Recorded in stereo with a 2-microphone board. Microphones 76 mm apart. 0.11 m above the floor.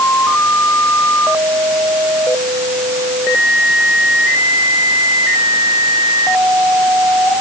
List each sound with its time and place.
Only background noise.